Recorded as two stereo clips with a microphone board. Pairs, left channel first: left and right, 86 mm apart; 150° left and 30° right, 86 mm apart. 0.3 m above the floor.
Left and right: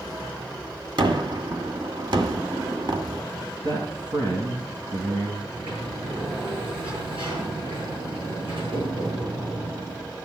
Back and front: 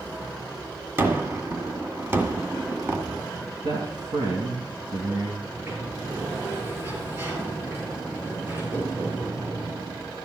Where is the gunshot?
90° right, 1.8 m.